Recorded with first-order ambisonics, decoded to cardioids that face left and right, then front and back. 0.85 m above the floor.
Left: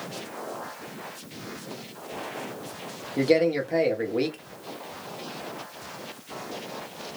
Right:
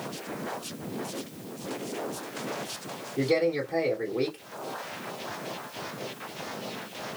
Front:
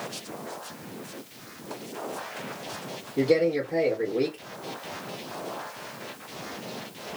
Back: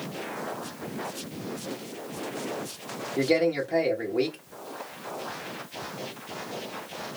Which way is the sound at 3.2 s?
105° left.